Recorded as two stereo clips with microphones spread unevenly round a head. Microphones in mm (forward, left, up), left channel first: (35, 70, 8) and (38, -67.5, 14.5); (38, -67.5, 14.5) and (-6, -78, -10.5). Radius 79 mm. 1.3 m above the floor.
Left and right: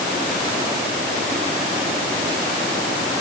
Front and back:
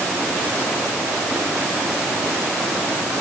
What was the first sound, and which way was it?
Only background noise.